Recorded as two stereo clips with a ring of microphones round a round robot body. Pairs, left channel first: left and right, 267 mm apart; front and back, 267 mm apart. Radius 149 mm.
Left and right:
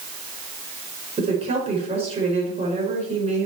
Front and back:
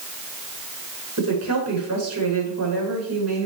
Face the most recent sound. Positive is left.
turn(degrees=-160)